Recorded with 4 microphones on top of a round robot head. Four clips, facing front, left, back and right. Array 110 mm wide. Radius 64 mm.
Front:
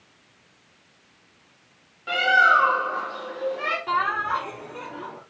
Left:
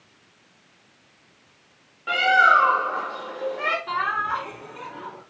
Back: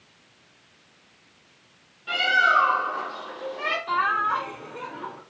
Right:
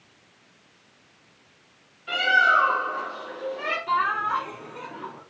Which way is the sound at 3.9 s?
5° right.